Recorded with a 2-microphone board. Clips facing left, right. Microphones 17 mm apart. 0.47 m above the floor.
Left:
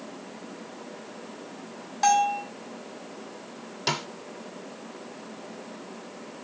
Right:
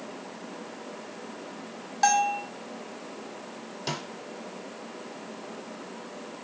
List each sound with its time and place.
2.0 s a bell: 10° right (ahead or behind), 1.7 m
3.9 s a snare drum: 25° left (ahead or behind), 0.6 m